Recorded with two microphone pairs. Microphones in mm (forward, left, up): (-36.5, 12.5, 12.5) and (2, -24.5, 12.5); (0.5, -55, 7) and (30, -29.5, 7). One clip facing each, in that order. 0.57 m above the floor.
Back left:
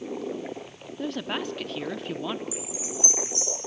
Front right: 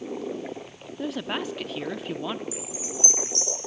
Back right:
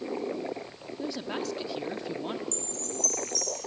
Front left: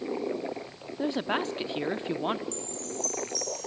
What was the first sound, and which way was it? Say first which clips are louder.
A woman speaking: front right 1 dB, front left 5 dB; 35° left.